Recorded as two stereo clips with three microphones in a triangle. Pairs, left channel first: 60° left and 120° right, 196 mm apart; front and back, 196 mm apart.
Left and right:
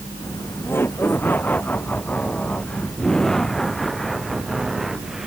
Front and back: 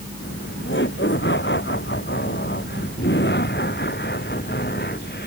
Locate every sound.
0.2 s laughter: 15° right; by 5.3 s 30° right